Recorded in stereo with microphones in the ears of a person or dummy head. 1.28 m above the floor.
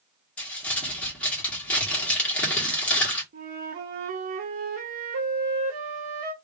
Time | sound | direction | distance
0.4 | crumpling | 10° left (ahead or behind) | 1.9 m
3.3 | a flute | 40° right (ahead or behind) | 0.7 m